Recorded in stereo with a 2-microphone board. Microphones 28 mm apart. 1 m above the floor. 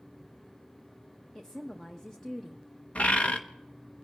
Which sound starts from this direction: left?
A bird, at 3.0 s.